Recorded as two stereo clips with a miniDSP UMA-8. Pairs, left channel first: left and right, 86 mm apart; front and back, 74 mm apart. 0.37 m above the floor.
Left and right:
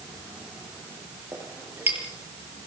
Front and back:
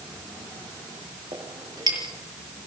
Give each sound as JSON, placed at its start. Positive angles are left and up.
{"t": 1.3, "sound": "a clink", "azimuth_deg": -160, "distance_m": 6.0}